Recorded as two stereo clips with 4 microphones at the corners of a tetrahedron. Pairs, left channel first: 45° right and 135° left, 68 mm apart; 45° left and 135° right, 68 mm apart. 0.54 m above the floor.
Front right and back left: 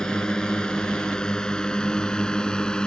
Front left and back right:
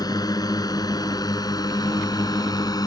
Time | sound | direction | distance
0.0 | a drone | 30° left | ?